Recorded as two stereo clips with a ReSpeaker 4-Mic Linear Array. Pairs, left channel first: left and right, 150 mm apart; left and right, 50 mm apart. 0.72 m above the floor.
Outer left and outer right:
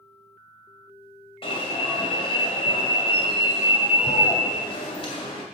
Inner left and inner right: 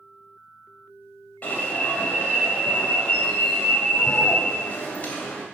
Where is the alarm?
40° left (ahead or behind), 2.5 m.